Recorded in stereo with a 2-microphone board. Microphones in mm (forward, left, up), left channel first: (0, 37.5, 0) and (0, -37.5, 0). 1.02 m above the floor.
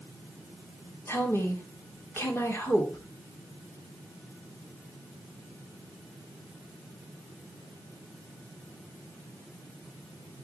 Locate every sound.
1.1 s a woman speaking: 35° left (ahead or behind), 3 m